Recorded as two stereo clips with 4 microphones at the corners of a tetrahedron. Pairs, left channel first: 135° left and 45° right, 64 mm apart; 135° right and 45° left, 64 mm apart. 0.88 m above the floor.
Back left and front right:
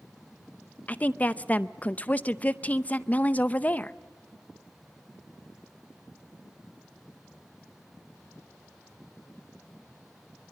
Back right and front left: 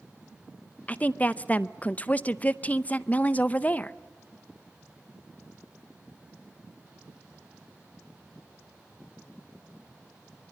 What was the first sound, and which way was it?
A woman speaking, straight behind.